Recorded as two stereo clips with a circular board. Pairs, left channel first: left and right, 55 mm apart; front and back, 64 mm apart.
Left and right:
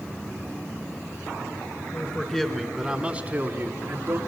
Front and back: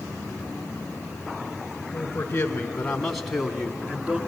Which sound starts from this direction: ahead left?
A man speaking, at 1.9 s.